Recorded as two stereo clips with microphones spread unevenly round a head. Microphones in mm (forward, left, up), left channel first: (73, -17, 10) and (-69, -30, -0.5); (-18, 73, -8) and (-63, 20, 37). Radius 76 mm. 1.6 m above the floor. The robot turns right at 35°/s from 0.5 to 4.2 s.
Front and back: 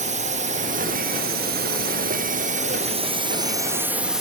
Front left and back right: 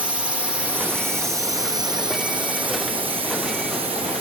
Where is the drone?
145° left; by 4.2 s 85° right.